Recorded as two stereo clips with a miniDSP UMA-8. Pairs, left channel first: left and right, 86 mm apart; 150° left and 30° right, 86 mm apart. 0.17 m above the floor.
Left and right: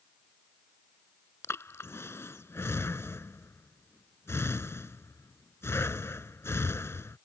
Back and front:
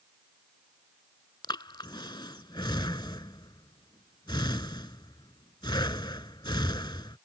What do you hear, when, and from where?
1.4 s breathing: 145° left